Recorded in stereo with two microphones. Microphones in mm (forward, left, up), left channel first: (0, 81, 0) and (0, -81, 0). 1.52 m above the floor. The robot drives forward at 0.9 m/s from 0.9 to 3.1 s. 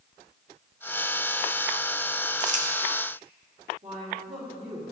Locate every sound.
2.4 s crumpling: 45° right (ahead or behind), 1.4 m
3.8 s a woman speaking: 45° right (ahead or behind), 3.5 m